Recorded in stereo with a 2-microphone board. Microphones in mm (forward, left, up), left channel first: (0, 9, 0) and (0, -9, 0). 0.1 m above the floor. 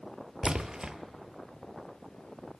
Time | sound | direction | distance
0.4 | a splash | 45° right (ahead or behind) | 0.6 m